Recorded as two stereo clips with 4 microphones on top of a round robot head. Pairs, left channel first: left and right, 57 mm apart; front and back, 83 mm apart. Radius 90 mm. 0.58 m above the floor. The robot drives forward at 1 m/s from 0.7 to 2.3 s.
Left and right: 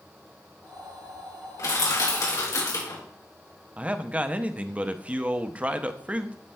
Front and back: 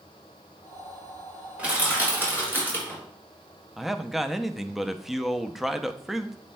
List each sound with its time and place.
1.6 s crushing: 105° left, 4 m; by 3.0 s 115° left, 4.5 m
3.8 s a man speaking: 100° right, 0.6 m